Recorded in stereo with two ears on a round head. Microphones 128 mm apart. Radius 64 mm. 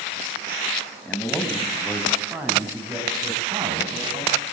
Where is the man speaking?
5° left (ahead or behind), 5.5 m; by 4.3 s 30° right (ahead or behind), 8 m.